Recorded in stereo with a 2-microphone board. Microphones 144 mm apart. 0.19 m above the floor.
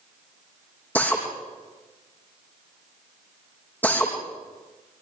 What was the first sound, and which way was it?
A drill, 10° left (ahead or behind).